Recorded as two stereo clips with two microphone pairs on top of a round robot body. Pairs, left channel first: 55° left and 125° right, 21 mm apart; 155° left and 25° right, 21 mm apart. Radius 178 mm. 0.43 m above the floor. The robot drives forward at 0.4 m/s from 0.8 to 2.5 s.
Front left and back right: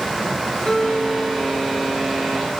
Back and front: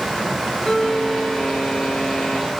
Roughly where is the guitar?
Left.